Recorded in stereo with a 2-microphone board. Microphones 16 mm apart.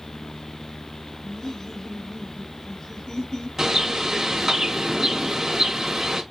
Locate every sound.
1.2 s laughter: 45° left (ahead or behind), 3 m
3.6 s a bird: 40° right (ahead or behind), 2 m